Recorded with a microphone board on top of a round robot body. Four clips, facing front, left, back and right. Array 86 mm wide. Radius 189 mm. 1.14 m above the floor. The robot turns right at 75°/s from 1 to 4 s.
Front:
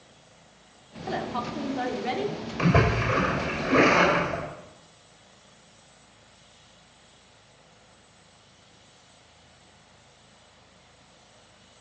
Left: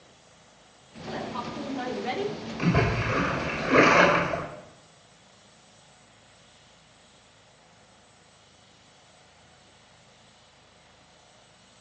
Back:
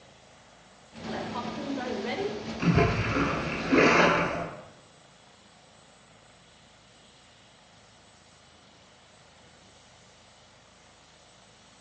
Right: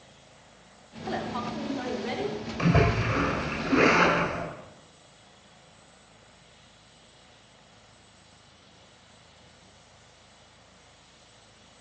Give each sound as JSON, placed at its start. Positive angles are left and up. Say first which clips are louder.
{"t": 1.1, "sound": "a woman speaking", "louder": "right 2 dB, front 3 dB", "azimuth_deg": -40, "distance_m": 3.0}
{"t": 2.6, "sound": "a splash", "louder": "right 1 dB, front 2 dB", "azimuth_deg": -5, "distance_m": 6.0}